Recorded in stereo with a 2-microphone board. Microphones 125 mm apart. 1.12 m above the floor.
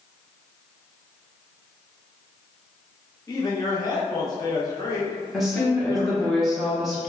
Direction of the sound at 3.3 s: 30° left (ahead or behind).